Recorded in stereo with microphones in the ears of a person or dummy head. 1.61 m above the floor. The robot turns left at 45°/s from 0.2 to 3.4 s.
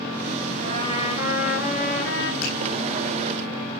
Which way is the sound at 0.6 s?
130° right.